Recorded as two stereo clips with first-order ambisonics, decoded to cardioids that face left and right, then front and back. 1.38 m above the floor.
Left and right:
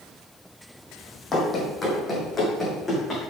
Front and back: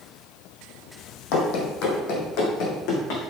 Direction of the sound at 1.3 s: 20° left.